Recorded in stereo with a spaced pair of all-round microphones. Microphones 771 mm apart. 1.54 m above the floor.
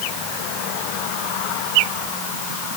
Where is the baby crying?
I don't hear a baby crying.